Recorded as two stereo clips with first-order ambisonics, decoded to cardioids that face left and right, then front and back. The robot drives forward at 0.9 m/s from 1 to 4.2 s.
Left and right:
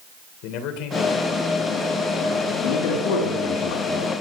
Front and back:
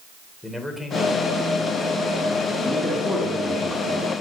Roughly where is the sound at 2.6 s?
Left.